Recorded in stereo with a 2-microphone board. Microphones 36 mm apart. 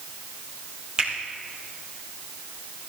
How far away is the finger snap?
About 3.5 m.